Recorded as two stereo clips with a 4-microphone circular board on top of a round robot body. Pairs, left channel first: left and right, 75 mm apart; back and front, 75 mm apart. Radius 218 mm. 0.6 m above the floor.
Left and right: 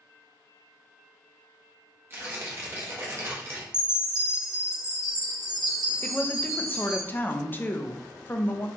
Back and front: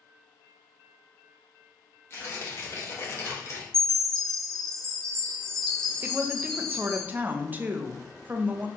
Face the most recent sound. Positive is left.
turn(degrees=50)